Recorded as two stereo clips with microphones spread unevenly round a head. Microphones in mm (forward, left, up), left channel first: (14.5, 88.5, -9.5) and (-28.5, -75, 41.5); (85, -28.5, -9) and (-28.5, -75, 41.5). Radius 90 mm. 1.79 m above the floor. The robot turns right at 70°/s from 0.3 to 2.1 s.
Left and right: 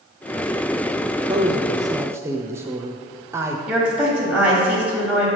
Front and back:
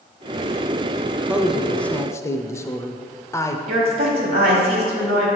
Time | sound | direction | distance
1.0 | a man speaking | 140° right | 0.5 m
3.7 | a woman speaking | 170° left | 1.4 m